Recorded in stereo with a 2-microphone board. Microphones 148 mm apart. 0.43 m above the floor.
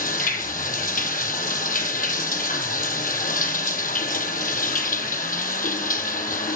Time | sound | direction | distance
0.0 | running water | 70° left (ahead or behind) | 1.2 m